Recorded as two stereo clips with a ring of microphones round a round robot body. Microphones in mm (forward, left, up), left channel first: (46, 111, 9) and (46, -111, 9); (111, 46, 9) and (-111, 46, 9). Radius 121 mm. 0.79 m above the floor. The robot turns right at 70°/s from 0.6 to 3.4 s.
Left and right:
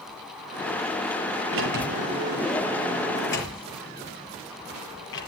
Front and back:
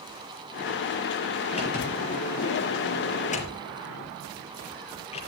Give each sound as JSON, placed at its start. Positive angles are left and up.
{"t": 1.5, "sound": "a sliding door", "azimuth_deg": -70, "distance_m": 5.5}